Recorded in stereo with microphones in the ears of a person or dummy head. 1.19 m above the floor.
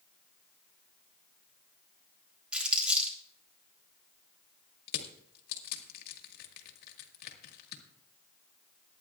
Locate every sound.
2.5 s crumpling: 5° right (ahead or behind), 3.5 m
4.9 s crushing: 55° left (ahead or behind), 1.7 m